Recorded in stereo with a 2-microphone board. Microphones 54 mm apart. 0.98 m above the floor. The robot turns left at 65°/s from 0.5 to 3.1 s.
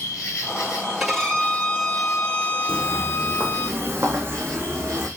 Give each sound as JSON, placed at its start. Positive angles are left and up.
{"t": 0.0, "sound": "an insect", "azimuth_deg": 90, "distance_m": 5.0}
{"t": 1.0, "sound": "a violin", "azimuth_deg": -175, "distance_m": 2.0}
{"t": 2.7, "sound": "footsteps", "side_deg": -50, "distance_m": 1.4}